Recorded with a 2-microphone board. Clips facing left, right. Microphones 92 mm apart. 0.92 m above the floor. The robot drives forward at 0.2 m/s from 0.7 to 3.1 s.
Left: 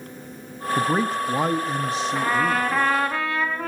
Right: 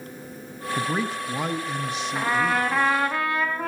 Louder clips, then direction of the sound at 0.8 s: Left 5 dB; 40° left (ahead or behind).